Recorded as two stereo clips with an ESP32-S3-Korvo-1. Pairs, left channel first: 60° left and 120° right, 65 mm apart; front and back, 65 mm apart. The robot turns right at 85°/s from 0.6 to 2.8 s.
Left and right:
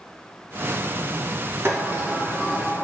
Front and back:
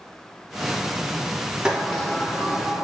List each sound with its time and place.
1.6 s a sliding door: 110° right, 0.7 m; by 2.8 s 15° right, 0.7 m